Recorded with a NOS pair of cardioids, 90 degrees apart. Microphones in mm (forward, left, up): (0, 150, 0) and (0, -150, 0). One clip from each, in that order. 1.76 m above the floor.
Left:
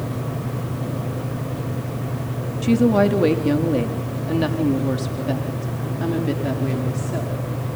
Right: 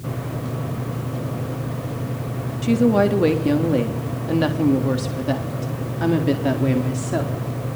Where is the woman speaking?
5° left, 3.5 m; by 7.5 s 45° right, 5 m.